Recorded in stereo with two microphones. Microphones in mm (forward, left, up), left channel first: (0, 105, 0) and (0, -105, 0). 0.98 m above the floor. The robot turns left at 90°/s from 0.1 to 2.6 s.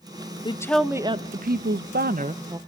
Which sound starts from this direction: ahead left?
A woman speaking, at 0.5 s.